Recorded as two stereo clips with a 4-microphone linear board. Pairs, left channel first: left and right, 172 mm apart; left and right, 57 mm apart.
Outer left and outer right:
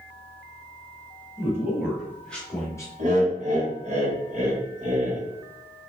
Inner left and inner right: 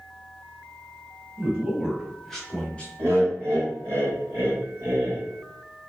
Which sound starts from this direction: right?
Laughter, at 3.0 s.